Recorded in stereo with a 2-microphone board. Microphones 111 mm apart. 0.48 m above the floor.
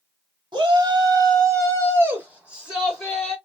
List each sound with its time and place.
0.5 s a shout: 45° right (ahead or behind), 1.4 m; by 3.4 s 5° left (ahead or behind), 1.4 m